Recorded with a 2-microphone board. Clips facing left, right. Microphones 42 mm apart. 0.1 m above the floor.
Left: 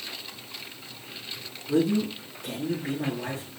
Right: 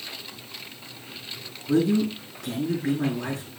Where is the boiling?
I don't hear boiling.